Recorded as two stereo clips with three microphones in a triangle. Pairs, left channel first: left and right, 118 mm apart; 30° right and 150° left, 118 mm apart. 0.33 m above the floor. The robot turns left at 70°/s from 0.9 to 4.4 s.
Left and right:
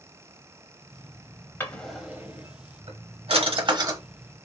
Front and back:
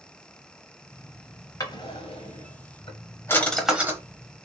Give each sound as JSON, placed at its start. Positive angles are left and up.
{"t": 1.6, "sound": "a drawer", "azimuth_deg": 25, "distance_m": 0.8}